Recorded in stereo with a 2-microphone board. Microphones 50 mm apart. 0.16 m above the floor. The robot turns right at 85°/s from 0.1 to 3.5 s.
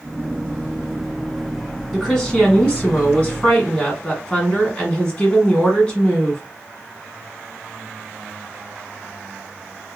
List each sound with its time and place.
1.9 s a woman speaking: centre (ahead or behind), 1.3 m; by 6.4 s 20° left (ahead or behind), 1.3 m